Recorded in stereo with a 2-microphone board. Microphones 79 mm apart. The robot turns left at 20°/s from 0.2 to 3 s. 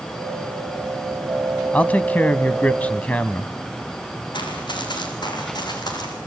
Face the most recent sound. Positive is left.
turn(degrees=55)  # may be behind; listen again after turning